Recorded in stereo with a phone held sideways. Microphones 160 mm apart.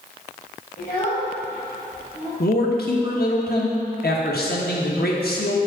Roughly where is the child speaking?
Left.